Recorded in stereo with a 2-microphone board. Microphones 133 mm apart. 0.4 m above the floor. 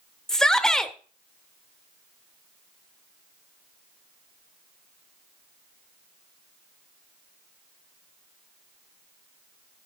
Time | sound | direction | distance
0.3 | a shout | 5° left (ahead or behind) | 0.9 m